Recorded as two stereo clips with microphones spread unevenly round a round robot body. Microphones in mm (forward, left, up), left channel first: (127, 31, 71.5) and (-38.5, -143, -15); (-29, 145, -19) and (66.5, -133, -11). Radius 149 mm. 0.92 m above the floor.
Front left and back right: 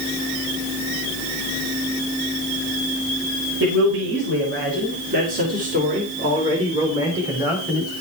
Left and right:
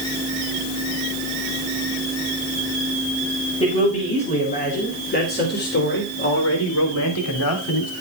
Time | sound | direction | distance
3.6 | a man speaking | straight behind | 4 m